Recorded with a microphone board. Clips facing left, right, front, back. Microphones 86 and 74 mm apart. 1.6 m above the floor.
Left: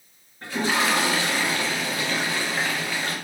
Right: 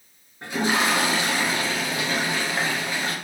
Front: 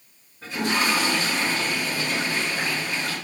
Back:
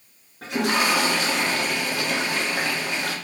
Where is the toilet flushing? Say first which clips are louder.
Right 1 dB, back 2 dB; 160° right, 1.0 m.